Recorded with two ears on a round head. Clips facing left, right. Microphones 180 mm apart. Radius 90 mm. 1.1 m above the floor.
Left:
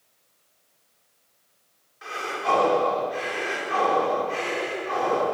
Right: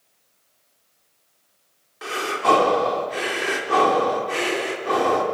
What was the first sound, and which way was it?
Breathing, 70° right (ahead or behind).